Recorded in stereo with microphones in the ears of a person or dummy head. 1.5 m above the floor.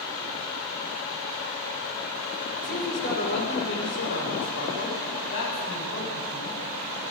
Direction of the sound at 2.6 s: 50° left (ahead or behind).